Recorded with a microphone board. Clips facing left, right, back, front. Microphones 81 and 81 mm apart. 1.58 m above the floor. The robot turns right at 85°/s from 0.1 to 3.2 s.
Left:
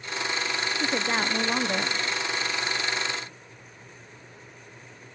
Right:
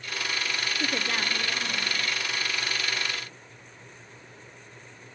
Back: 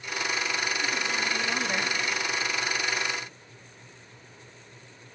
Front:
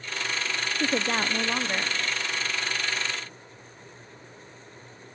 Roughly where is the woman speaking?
Ahead.